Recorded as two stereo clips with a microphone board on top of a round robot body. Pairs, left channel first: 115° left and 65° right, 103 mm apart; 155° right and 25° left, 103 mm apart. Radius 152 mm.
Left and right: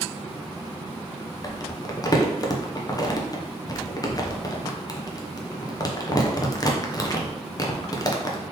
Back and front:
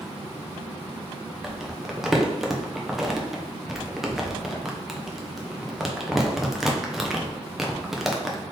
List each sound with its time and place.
1.4 s crumpling: 105° left, 0.8 m